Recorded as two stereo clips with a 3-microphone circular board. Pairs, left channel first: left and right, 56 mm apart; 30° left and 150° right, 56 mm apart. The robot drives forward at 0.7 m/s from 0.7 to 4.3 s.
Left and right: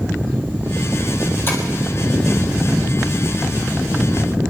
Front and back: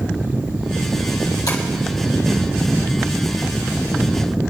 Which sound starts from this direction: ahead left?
Tapping, at 1.5 s.